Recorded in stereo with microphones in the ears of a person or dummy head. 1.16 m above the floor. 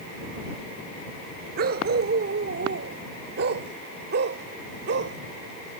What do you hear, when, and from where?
1.6 s a dog barking: 60° right (ahead or behind); by 5.2 s 70° right (ahead or behind)